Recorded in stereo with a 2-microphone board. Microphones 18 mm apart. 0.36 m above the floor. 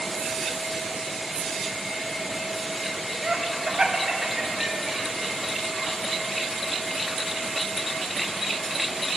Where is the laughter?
40° right (ahead or behind), 1.5 m; by 5.0 s 70° right (ahead or behind), 2.5 m.